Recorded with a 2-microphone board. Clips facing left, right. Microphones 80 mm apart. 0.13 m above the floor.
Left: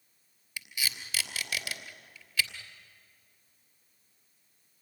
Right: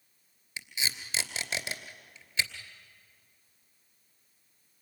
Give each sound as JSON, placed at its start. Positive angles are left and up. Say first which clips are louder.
{"t": 0.6, "sound": "tape being pulled", "louder": "right 1 dB", "side_deg": -30, "distance_m": 2.5}